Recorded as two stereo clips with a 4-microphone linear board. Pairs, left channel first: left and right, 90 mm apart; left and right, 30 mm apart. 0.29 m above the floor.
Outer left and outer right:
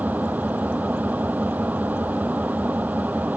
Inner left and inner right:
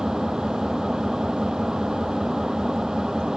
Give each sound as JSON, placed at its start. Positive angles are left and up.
{"t": 0.0, "sound": "an engine running", "side_deg": -20}